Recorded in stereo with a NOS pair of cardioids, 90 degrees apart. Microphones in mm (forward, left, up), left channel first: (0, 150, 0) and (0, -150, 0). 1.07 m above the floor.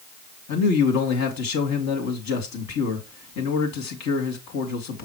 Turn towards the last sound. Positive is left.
turn(degrees=70)